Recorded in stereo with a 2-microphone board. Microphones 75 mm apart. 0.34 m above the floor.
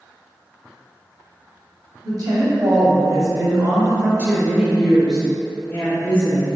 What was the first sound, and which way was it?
A woman speaking, 55° right (ahead or behind).